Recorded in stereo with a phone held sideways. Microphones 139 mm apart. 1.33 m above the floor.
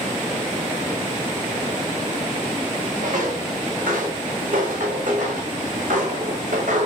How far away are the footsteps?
About 6 m.